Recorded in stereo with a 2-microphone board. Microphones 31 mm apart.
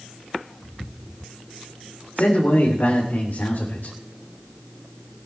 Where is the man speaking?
80° left, 3.5 m.